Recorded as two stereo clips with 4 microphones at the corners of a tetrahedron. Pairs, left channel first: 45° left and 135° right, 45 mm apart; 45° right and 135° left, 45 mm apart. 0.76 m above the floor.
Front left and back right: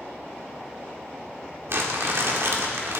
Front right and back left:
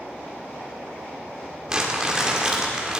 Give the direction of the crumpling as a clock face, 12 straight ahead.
5 o'clock.